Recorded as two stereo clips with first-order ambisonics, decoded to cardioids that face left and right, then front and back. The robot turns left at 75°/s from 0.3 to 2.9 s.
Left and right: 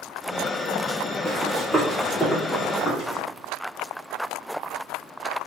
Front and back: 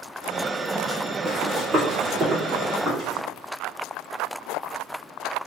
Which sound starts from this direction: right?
Running footsteps, at 1.2 s.